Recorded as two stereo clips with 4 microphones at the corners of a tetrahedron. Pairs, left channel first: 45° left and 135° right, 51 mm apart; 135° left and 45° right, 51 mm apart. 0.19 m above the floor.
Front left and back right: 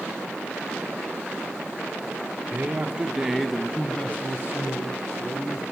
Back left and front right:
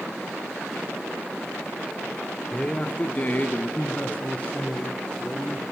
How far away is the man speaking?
About 1.7 m.